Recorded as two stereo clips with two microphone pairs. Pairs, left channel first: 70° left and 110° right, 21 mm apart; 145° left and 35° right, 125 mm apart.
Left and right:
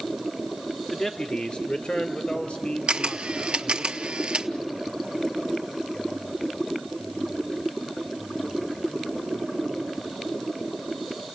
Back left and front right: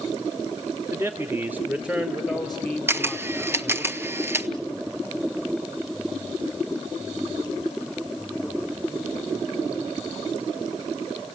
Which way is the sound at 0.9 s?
15° left.